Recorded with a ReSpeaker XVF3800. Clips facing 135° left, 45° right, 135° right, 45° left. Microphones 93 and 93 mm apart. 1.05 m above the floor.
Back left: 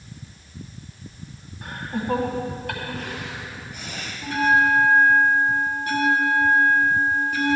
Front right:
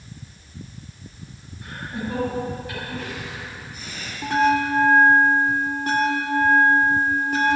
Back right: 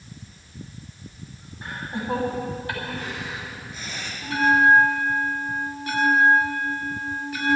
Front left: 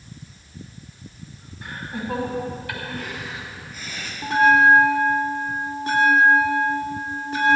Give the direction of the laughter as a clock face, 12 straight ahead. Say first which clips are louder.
Back left 2 dB, even; 6 o'clock.